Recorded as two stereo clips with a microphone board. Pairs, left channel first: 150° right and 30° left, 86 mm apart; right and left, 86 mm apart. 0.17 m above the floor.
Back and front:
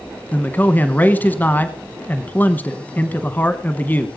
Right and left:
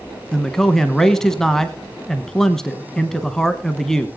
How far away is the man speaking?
About 1.1 m.